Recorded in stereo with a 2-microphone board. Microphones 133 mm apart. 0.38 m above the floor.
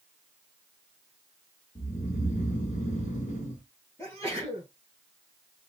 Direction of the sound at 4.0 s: 25° left (ahead or behind).